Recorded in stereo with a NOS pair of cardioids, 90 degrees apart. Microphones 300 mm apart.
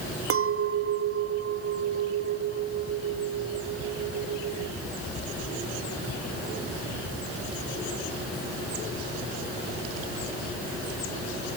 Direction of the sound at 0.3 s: 50° right.